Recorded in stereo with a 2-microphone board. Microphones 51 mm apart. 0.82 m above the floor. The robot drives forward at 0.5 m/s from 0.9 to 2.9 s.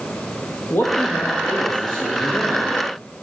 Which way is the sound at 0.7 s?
55° left (ahead or behind).